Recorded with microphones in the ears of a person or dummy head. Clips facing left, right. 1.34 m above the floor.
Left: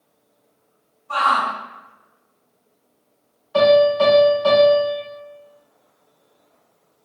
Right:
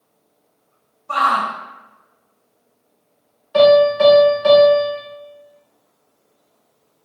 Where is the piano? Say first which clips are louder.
Right 3 dB; 30° right (ahead or behind), 1.4 m.